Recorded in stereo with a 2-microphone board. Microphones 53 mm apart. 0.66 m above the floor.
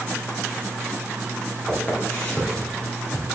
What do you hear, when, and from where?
1.7 s footsteps: 35° left (ahead or behind), 3.5 m; by 3.3 s 30° left (ahead or behind), 2.5 m